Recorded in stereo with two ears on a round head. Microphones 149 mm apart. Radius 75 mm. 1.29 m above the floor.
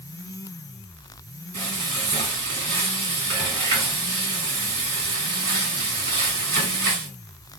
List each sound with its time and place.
1.5 s frying: 60° right (ahead or behind), 2 m